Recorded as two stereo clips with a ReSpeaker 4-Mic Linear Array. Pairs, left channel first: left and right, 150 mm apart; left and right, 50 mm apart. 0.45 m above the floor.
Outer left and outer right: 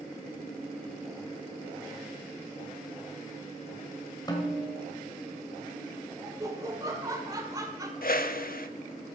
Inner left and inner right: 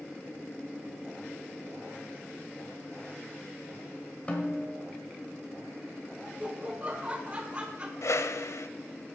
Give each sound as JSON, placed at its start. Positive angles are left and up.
{"t": 4.3, "sound": "a snare drum", "side_deg": 25, "distance_m": 1.6}
{"t": 6.2, "sound": "laughter", "side_deg": -20, "distance_m": 1.6}
{"t": 8.0, "sound": "a whoosh", "side_deg": 70, "distance_m": 0.5}